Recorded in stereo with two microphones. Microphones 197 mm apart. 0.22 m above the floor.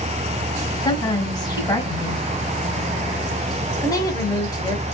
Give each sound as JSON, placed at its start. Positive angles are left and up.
{"t": 0.8, "sound": "a woman speaking", "side_deg": 20, "distance_m": 1.5}
{"t": 3.8, "sound": "a woman speaking", "side_deg": 20, "distance_m": 1.2}